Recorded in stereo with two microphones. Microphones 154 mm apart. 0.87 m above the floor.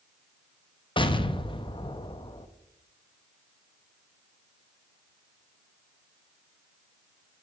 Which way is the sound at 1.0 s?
35° left (ahead or behind).